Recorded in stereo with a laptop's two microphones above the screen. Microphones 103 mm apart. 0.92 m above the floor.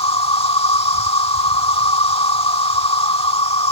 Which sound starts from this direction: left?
An insect, at 0.0 s.